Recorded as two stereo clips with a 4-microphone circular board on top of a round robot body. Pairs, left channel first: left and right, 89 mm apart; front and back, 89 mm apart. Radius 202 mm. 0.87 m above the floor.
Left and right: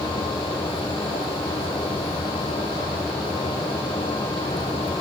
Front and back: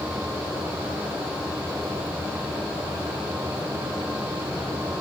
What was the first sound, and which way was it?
Only background noise.